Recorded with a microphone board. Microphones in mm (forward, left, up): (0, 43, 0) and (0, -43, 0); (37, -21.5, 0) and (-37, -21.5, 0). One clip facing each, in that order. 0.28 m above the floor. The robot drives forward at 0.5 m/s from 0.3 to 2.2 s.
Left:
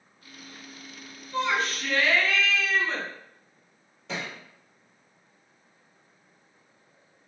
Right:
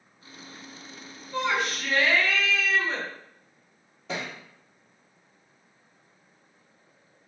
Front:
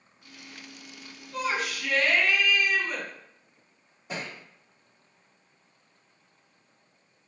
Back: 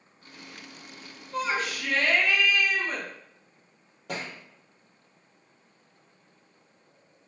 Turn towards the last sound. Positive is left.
turn(degrees=-175)